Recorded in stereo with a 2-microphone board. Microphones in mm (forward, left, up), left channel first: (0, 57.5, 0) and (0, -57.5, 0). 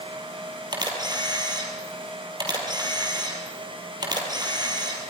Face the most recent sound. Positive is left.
turn(degrees=-40)  # may be behind; listen again after turning